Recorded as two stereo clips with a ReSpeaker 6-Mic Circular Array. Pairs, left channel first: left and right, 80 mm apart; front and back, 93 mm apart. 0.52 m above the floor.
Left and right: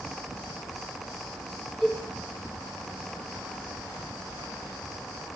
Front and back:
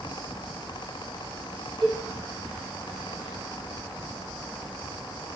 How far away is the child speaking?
No child speaking in this recording.